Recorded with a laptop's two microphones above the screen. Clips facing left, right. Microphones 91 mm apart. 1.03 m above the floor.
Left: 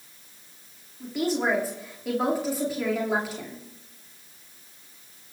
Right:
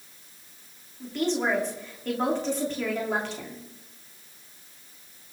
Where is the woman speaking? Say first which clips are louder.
Left 1 dB; 10° left (ahead or behind), 2.5 m.